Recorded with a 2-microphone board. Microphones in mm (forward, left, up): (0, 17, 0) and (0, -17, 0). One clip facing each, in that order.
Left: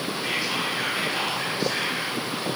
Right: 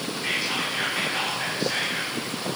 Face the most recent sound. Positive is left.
turn(degrees=5)  # may be behind; listen again after turning